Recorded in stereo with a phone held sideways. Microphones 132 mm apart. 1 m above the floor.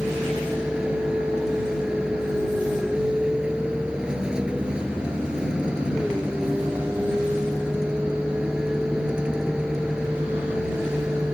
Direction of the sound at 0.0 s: 5° right (ahead or behind).